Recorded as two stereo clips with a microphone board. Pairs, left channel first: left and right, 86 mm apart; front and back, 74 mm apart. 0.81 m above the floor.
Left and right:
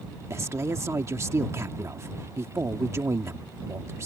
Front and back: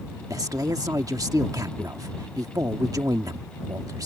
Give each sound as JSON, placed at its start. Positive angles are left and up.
{"t": 0.3, "sound": "a man speaking", "azimuth_deg": -145}